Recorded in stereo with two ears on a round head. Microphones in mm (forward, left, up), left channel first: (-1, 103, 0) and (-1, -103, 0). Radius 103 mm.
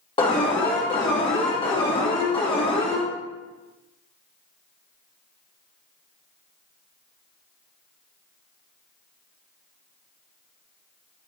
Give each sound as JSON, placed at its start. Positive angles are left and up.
{"t": 0.2, "sound": "an alarm", "side_deg": 25, "distance_m": 1.6}